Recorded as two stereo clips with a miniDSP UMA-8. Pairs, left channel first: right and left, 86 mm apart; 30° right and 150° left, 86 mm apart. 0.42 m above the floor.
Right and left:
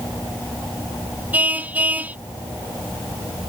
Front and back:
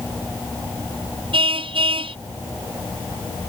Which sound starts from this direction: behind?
A car horn, at 1.3 s.